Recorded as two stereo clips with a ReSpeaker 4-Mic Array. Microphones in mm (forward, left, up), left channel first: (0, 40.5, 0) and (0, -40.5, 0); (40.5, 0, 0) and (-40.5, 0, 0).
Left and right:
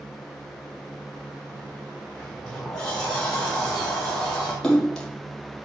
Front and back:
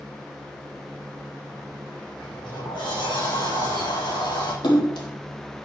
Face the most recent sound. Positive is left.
turn(degrees=5)